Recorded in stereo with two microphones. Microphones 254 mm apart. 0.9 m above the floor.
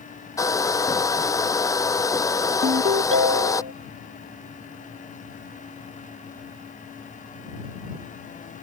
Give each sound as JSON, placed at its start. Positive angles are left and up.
{"t": 0.4, "sound": "a hair dryer", "side_deg": 15}
{"t": 2.6, "sound": "a ringtone", "side_deg": -55}